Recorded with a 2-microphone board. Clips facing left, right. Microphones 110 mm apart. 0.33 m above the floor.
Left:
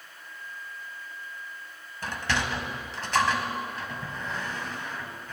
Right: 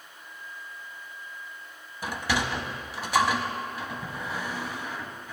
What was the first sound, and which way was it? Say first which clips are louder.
A sliding door: right 1 dB; 10° right (ahead or behind).